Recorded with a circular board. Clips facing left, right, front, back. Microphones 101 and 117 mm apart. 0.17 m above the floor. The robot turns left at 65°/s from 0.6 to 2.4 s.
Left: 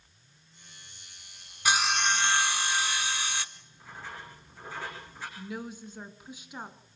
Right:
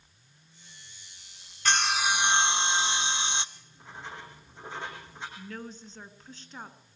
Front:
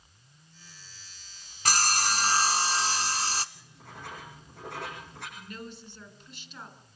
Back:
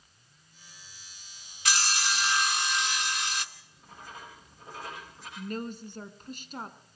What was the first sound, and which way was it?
Sawing, 15° left.